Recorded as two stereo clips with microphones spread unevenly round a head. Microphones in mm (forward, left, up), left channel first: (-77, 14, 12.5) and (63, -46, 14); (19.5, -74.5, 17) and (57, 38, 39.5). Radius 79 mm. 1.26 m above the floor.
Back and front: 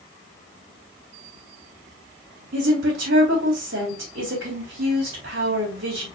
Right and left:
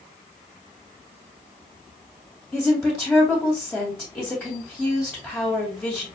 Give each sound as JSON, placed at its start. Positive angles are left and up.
{"t": 2.5, "sound": "a woman speaking", "azimuth_deg": -30, "distance_m": 2.5}